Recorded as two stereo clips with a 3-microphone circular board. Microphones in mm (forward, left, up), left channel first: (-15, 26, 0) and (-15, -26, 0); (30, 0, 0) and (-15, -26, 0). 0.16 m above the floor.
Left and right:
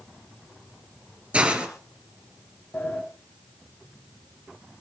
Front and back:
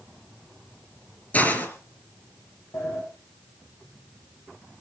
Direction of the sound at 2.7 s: 35° left.